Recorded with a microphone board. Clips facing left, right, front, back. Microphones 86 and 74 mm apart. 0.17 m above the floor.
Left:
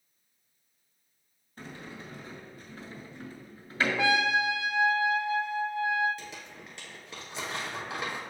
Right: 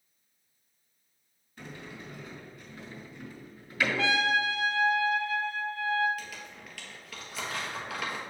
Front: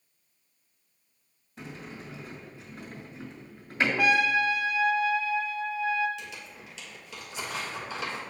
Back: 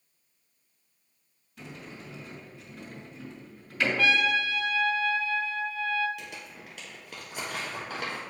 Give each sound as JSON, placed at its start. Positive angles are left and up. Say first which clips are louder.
{"t": 1.6, "sound": "a sliding door", "louder": "left 1 dB, front 2 dB", "azimuth_deg": 50, "distance_m": 1.9}
{"t": 4.0, "sound": "a trumpet", "louder": "left 2 dB, front 2 dB", "azimuth_deg": 45, "distance_m": 0.5}
{"t": 6.2, "sound": "crumpling", "louder": "right 1 dB, even", "azimuth_deg": 155, "distance_m": 1.4}